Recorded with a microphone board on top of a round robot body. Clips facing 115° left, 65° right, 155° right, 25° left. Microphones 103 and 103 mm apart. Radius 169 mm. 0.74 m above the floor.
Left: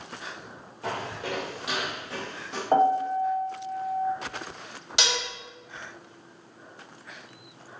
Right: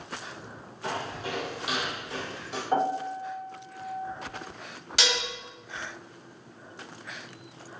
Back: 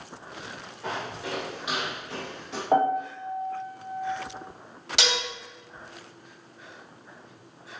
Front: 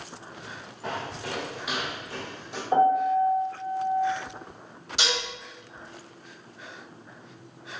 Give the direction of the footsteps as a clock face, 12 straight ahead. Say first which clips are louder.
Left 1 dB, even; 9 o'clock.